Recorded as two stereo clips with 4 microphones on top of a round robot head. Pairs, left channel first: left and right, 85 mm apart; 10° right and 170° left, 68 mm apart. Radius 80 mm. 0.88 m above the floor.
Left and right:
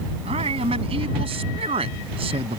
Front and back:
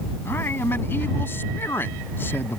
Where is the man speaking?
75° right.